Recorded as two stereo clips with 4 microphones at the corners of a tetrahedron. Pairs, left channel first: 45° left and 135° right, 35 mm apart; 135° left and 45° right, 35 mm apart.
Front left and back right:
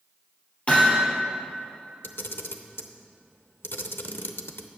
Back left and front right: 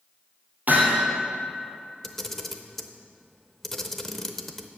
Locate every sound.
0.7 s hammering: 5° right, 3.5 m
2.0 s a camera shutter: 55° left, 0.7 m